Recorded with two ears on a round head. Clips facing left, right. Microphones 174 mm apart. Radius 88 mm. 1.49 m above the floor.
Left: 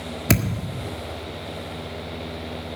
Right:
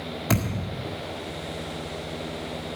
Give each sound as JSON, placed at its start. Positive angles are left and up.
{"t": 0.3, "sound": "a thud", "side_deg": 25, "distance_m": 1.7}